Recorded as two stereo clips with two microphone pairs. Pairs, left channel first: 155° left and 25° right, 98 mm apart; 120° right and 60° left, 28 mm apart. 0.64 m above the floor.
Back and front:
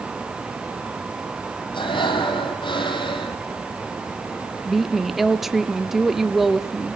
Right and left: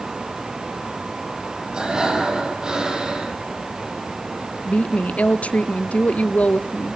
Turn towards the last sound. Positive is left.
turn(degrees=-115)